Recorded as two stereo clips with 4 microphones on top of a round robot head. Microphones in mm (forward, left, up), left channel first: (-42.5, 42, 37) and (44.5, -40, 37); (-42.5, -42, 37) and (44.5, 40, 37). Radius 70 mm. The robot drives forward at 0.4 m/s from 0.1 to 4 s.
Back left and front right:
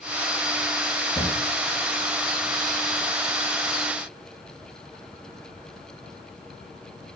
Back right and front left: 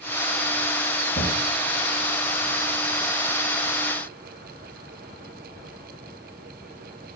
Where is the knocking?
165° right, 3 m.